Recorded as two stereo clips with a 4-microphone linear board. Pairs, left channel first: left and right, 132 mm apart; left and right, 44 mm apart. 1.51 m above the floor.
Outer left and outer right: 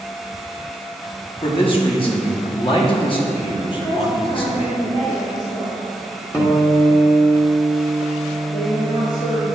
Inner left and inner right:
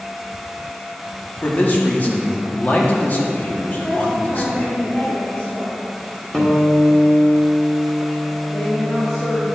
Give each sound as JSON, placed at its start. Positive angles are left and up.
{"t": 1.4, "sound": "a man speaking", "side_deg": 40, "distance_m": 1.1}
{"t": 3.7, "sound": "a woman speaking", "side_deg": 40, "distance_m": 1.7}
{"t": 6.3, "sound": "a guitar", "side_deg": 20, "distance_m": 0.9}
{"t": 8.5, "sound": "a woman speaking", "side_deg": 90, "distance_m": 1.0}